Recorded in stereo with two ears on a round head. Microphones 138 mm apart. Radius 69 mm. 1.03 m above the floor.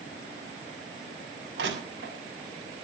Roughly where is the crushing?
Right.